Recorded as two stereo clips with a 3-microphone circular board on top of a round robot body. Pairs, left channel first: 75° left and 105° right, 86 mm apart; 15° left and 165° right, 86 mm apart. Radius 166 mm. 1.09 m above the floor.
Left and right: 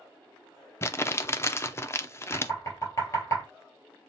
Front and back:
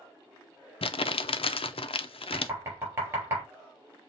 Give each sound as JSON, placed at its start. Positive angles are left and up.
{"t": 0.8, "sound": "crumpling", "azimuth_deg": 15, "distance_m": 0.6}
{"t": 2.3, "sound": "knocking", "azimuth_deg": 135, "distance_m": 3.5}